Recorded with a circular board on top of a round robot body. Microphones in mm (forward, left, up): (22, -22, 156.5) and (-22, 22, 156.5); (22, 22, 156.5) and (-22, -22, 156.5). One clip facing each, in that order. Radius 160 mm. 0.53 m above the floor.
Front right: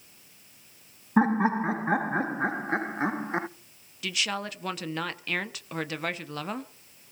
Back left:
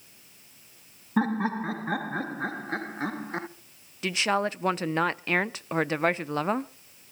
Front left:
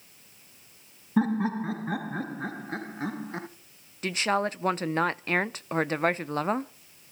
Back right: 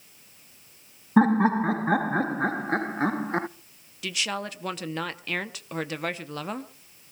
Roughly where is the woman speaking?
Left.